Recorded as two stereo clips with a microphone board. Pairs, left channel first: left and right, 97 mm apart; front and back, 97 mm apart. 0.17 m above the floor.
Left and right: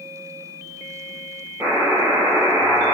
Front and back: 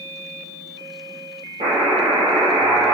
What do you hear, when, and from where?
1.6 s a buzzer: 160° right, 4.5 m